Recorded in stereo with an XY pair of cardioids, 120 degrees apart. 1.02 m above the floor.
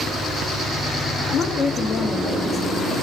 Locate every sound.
1.3 s a woman speaking: 45° left, 1.1 m; by 3.0 s 5° right, 1.5 m